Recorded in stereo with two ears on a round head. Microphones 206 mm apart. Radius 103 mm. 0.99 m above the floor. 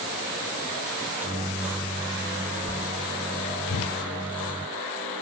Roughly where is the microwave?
Centre.